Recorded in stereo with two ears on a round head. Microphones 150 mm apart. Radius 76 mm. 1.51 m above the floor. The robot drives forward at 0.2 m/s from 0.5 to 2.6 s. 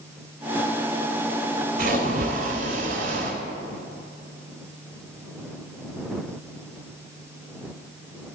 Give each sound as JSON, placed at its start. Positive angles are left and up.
{"t": 1.8, "sound": "a splash", "side_deg": -55, "distance_m": 3.0}